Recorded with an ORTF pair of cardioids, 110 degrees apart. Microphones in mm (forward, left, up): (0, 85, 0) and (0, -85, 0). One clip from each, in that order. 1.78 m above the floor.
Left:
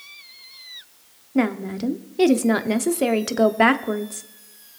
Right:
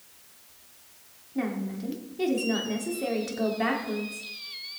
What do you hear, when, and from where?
1.4 s a woman speaking: 65° left, 0.9 m